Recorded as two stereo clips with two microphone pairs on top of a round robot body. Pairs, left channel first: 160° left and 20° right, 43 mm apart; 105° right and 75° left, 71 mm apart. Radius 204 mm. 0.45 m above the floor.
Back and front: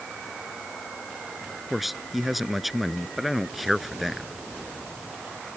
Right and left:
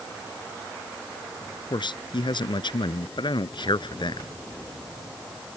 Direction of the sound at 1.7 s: 105° right.